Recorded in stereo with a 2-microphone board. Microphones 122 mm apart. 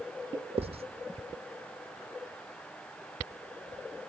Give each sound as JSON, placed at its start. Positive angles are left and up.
{"t": 0.6, "sound": "writing", "side_deg": -55, "distance_m": 0.9}